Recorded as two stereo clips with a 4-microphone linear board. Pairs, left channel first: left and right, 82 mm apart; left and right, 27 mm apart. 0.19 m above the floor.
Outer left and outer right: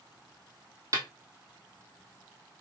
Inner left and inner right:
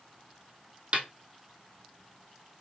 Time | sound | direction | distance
0.9 | a snare drum | 45° right (ahead or behind) | 1.3 m